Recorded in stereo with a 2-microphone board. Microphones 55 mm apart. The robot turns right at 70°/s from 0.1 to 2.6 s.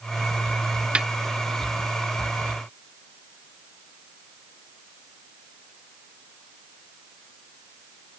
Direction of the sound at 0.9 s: 20° right (ahead or behind).